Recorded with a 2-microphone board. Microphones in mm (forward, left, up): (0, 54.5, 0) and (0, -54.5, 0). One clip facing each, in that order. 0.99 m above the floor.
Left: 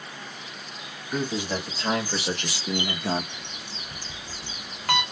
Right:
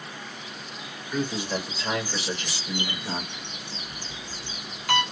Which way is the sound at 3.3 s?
45° left (ahead or behind).